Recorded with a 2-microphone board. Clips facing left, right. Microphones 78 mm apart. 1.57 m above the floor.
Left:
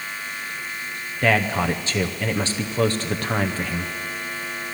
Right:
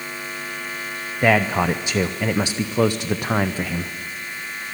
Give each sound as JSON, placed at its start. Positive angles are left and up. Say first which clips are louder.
{"t": 1.2, "sound": "a man speaking", "louder": "right 3 dB", "side_deg": -15, "distance_m": 0.6}